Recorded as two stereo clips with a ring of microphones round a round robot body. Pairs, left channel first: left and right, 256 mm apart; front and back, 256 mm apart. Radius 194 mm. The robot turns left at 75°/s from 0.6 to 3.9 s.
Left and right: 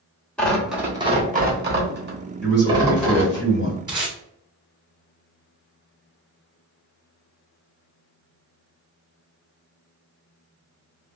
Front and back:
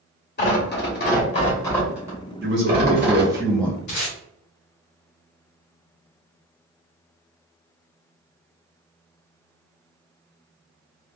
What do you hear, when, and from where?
0.4 s tearing paper: 5° left, 1.3 m; by 3.4 s 155° left, 1.3 m
2.4 s a man speaking: 175° left, 1.9 m; by 3.8 s 70° left, 1.9 m
3.9 s tape being pulled: 15° right, 1.5 m